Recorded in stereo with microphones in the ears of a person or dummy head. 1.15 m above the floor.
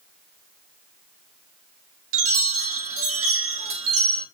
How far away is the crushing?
No crushing in this recording.